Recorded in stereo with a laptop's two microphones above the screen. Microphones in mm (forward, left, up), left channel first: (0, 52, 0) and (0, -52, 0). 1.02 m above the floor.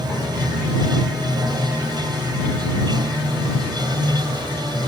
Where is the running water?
45° right (ahead or behind).